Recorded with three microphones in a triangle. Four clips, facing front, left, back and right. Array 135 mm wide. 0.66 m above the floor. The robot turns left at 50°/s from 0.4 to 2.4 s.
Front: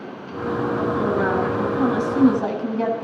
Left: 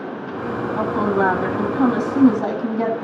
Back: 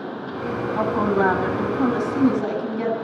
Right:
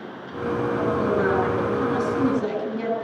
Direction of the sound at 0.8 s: 150° left.